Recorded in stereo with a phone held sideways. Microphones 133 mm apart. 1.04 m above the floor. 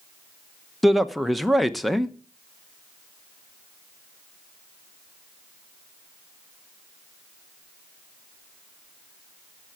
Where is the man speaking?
Centre (ahead or behind), 0.9 m.